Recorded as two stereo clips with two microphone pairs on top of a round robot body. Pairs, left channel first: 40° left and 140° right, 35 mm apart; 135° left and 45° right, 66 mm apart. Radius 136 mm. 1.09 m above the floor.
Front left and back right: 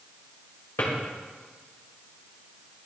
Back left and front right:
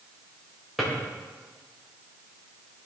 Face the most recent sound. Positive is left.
turn(degrees=45)